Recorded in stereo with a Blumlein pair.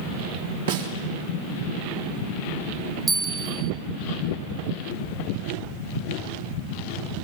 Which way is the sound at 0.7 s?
65° right.